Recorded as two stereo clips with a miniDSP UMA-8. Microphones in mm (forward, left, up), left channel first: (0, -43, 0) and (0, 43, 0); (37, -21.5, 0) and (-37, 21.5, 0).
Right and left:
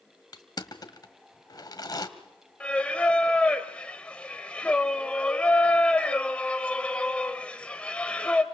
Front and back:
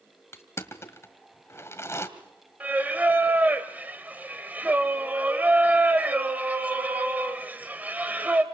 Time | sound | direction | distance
0.3 | crushing | 75° right | 1.7 m
2.6 | singing | 155° right | 1.5 m